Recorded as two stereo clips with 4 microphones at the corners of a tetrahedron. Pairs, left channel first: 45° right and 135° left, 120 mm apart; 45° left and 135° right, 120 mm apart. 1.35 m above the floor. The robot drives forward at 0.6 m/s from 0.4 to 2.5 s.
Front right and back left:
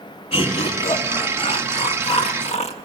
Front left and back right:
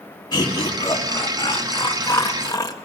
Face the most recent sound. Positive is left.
turn(degrees=-15)